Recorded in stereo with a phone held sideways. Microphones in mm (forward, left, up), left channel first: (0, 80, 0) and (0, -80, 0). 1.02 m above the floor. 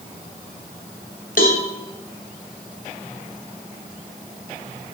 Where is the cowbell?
60° left (ahead or behind), 3 m.